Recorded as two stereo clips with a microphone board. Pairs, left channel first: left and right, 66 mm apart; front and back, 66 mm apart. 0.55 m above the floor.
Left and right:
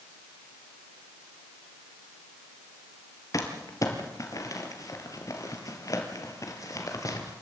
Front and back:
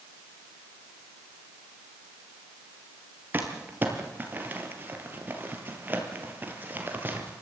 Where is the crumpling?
120° left, 3 m.